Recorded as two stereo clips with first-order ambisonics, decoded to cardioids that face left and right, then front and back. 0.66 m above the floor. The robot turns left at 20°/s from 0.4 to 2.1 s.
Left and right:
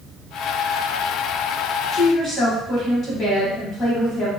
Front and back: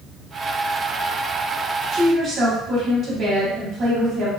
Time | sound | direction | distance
1.9 | a woman speaking | 140° left | 1.0 m